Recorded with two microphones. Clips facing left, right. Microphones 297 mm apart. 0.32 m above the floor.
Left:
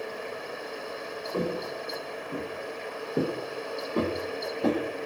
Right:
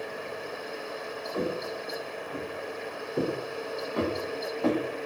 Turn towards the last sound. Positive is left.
turn(degrees=30)  # may be behind; listen again after turning